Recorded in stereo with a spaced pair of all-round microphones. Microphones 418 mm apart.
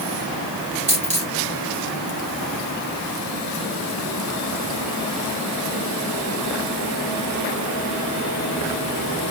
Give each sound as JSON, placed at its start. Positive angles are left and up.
{"t": 0.9, "sound": "a dropped coin", "side_deg": -15, "distance_m": 2.5}